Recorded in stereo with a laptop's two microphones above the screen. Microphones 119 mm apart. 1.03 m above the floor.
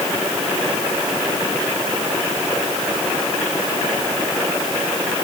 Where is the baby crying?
No baby crying in this recording.